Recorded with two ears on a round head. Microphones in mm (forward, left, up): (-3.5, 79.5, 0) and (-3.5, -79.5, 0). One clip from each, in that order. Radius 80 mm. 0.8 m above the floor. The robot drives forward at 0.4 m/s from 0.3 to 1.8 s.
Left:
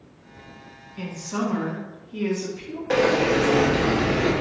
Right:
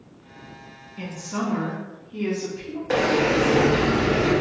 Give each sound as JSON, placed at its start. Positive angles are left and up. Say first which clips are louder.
{"t": 1.0, "sound": "a woman speaking", "louder": "left 1 dB", "side_deg": 15, "distance_m": 0.7}
{"t": 2.9, "sound": "a sliding door", "louder": "left 1 dB", "side_deg": 5, "distance_m": 0.6}